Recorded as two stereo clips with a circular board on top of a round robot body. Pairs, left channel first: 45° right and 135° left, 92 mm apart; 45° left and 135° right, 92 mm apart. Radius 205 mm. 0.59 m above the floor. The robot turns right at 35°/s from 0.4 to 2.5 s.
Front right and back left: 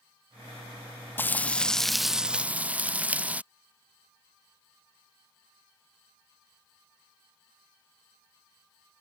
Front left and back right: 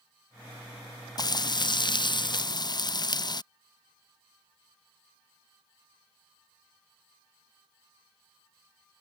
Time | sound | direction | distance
1.2 | frying | 20° left | ?